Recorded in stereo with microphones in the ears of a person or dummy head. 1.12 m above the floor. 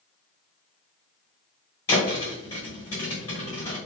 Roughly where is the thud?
Centre.